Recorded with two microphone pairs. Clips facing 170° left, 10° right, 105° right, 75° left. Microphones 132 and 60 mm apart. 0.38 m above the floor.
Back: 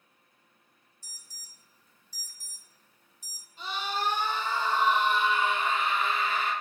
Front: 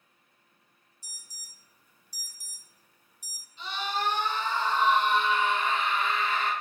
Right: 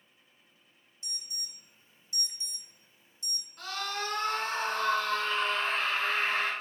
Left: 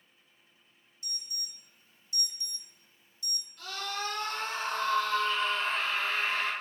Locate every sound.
1.0 s an alarm: 70° right, 0.9 m
3.6 s a scream: 150° right, 4 m